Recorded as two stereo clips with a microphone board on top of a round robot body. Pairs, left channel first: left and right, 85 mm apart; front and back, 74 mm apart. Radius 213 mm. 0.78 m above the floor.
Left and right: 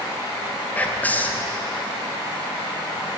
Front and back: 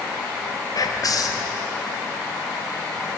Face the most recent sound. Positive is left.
turn(degrees=20)